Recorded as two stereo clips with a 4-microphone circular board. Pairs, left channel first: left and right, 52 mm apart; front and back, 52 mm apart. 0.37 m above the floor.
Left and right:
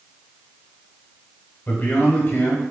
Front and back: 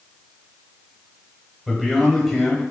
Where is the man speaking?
80° left, 1.2 m.